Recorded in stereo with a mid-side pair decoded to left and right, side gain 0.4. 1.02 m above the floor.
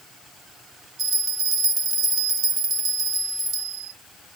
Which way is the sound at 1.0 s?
60° right.